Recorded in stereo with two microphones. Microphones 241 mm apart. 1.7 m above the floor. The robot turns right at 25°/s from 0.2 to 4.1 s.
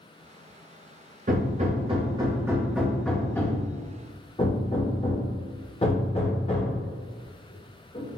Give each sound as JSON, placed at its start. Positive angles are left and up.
{"t": 1.3, "sound": "hammering", "side_deg": -35, "distance_m": 0.6}